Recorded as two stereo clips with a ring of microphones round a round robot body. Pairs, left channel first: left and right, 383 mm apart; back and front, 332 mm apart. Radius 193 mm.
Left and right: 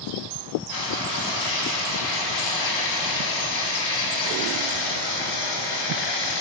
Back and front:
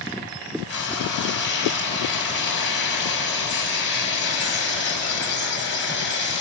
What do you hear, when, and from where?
0.7 s frying: 125° left, 4.5 m